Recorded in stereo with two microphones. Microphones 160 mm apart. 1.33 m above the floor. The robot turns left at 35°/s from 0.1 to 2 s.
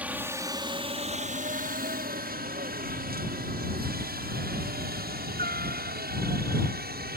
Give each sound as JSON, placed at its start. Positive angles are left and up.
{"t": 0.0, "sound": "a helicopter", "side_deg": -10}